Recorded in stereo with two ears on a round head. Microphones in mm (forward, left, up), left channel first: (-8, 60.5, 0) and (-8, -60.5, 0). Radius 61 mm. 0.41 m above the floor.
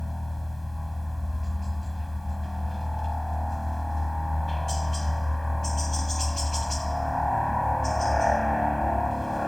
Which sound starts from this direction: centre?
A helicopter, at 0.0 s.